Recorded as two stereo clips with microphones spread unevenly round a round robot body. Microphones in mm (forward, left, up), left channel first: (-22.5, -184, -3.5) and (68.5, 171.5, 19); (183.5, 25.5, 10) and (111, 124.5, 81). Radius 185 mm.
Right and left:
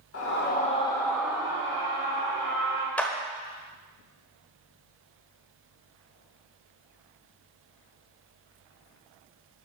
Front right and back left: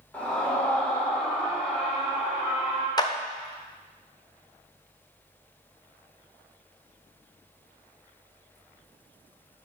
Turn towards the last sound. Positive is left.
turn(degrees=-20)